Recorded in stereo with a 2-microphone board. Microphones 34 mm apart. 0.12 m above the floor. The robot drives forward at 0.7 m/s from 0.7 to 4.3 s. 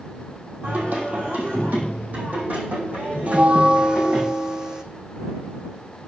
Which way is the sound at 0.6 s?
65° right (ahead or behind).